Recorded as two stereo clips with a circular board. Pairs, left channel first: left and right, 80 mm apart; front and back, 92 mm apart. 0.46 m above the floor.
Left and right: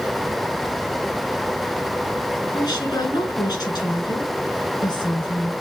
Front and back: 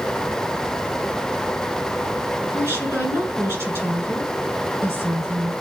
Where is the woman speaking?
115° left, 5 m.